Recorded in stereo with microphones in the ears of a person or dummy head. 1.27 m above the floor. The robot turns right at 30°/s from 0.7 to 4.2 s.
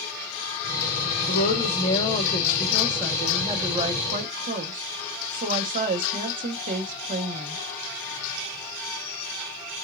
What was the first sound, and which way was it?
A woman speaking, 130° left.